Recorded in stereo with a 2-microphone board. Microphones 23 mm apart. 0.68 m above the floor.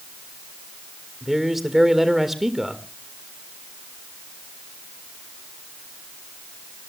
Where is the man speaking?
10° right (ahead or behind), 2 m.